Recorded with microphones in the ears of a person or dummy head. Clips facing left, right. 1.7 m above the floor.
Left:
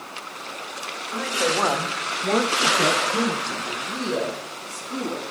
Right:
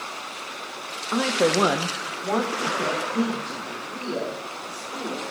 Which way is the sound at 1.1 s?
60° right (ahead or behind).